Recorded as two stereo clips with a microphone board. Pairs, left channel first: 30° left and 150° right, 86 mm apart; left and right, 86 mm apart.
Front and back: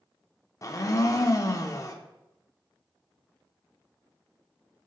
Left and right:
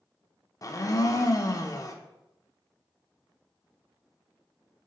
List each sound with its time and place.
0.6 s a blender: 65° left, 0.6 m